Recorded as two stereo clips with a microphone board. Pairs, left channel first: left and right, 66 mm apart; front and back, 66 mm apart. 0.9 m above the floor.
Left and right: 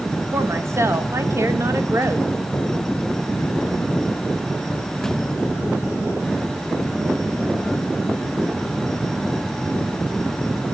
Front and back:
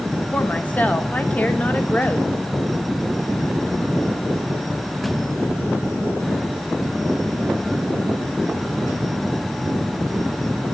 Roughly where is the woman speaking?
Ahead right.